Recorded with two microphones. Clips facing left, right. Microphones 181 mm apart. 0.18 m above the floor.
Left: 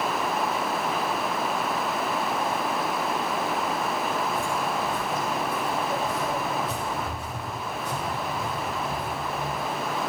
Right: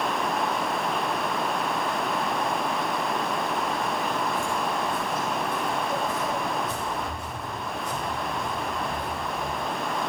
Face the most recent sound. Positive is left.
turn(degrees=45)  # may be behind; listen again after turning